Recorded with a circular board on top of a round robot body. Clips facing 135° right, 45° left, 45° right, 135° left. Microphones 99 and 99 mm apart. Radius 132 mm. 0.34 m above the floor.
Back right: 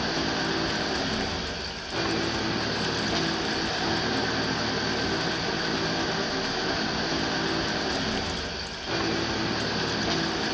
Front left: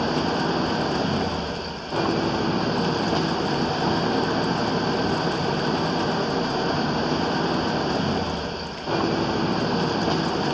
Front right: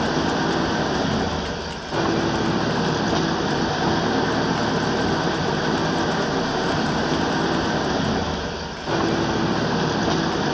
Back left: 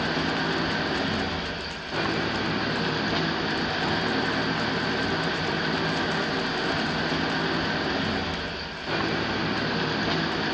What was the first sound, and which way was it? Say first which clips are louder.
An engine running: front left 5 dB, front right 6 dB; 10° left.